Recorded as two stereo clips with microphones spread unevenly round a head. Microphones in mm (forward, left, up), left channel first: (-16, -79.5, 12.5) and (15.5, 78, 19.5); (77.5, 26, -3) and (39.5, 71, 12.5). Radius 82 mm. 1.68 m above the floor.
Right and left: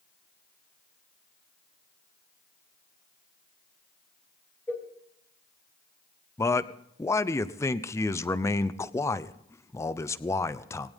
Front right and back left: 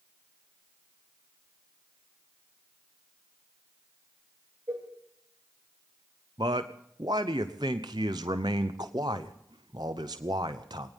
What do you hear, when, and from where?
4.7 s a cowbell: straight behind, 3 m
6.4 s a man speaking: 175° right, 0.8 m